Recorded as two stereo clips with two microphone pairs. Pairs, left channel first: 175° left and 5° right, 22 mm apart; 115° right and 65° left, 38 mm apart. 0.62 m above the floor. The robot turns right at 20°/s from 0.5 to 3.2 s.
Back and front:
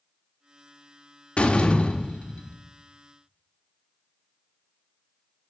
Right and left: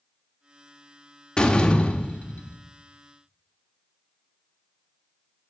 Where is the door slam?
Straight behind, 1.2 m; by 2.5 s 160° right, 1.2 m.